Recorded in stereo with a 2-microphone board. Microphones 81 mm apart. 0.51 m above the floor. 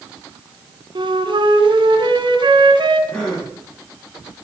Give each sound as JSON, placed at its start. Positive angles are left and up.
{"t": 0.9, "sound": "a flute", "side_deg": -80, "distance_m": 3.0}
{"t": 3.1, "sound": "a gasp", "side_deg": 10, "distance_m": 9.5}